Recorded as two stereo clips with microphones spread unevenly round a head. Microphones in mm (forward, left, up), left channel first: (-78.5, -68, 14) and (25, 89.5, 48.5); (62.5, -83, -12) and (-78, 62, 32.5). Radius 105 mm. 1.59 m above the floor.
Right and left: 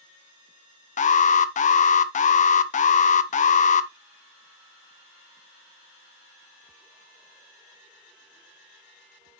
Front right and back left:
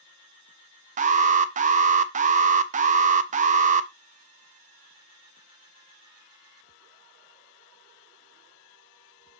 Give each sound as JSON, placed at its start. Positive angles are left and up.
{"t": 1.0, "sound": "an alarm", "azimuth_deg": -175, "distance_m": 0.7}